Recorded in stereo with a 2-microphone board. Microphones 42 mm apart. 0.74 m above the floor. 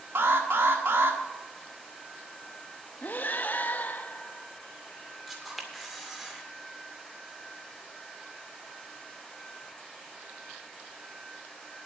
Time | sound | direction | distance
0.1 | an alarm | 70° right (ahead or behind) | 1.4 m
3.0 | breathing | 45° left (ahead or behind) | 0.6 m
5.3 | a camera shutter | 5° right (ahead or behind) | 2 m